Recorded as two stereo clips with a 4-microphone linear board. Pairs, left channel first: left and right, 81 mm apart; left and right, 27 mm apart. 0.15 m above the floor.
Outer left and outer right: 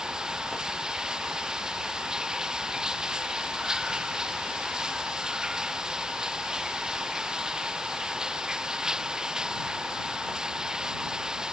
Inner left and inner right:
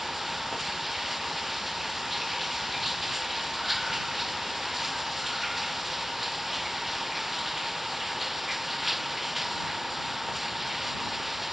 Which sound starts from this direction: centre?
Running water, at 0.0 s.